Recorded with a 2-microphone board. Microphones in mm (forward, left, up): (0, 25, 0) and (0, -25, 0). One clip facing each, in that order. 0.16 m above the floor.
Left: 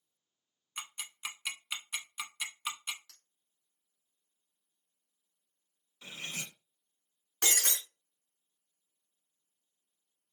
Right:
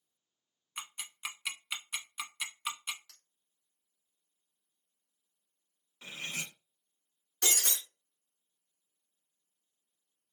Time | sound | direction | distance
0.8 | ticking | 5° right (ahead or behind) | 0.7 m
3.1 | a clink | 10° right (ahead or behind) | 1.0 m
6.0 | cutlery clinking | 30° right (ahead or behind) | 0.7 m
7.4 | breaking glass | 50° left (ahead or behind) | 1.3 m